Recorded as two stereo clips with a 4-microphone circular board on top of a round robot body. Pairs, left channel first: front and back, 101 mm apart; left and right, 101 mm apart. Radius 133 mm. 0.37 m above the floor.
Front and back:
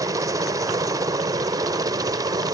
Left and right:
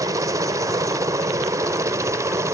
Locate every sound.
0.0 s a helicopter: 135° right; by 2.5 s 140° right